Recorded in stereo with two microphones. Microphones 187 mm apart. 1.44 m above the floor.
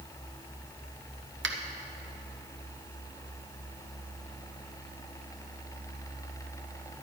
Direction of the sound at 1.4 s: 90° right.